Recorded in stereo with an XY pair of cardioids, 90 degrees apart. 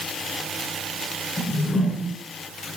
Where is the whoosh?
30° left, 4.5 m.